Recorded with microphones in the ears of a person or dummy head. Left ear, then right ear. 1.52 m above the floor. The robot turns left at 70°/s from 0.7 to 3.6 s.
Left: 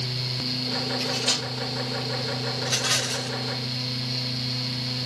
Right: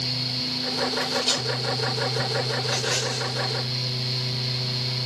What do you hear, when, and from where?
1.0 s cutlery clinking: 30° left (ahead or behind), 5 m; by 1.5 s 5° right (ahead or behind), 5 m
2.6 s a rattle: centre (ahead or behind), 1.4 m; by 3.3 s 20° left (ahead or behind), 1.4 m